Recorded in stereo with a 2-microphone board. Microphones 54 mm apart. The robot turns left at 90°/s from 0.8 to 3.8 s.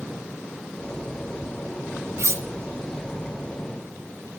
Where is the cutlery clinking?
55° right (ahead or behind), 0.6 m.